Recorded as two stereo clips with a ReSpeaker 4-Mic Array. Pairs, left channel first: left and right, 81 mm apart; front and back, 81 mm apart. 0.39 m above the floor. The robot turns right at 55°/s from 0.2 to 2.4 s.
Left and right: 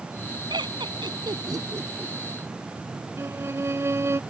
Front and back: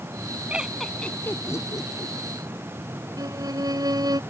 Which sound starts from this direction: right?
Laughter, at 0.5 s.